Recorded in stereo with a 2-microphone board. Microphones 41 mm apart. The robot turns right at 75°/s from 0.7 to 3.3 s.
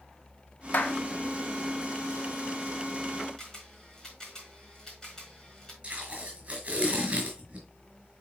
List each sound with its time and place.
0.7 s a clap: 40° left (ahead or behind), 1.5 m; by 1.0 s 30° left (ahead or behind), 1.5 m
3.4 s a camera shutter: 15° left (ahead or behind), 4.5 m
5.8 s tape being pulled: 30° right (ahead or behind), 5 m